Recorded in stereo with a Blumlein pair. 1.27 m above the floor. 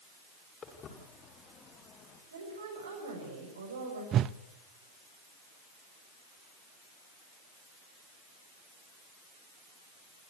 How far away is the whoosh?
About 0.6 m.